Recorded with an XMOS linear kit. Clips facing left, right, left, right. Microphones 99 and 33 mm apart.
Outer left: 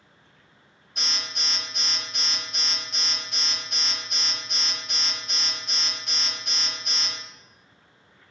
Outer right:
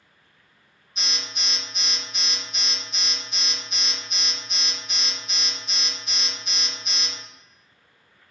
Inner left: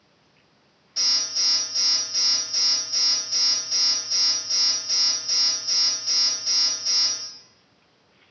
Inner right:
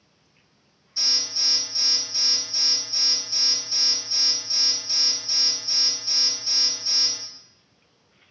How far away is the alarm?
About 1.4 m.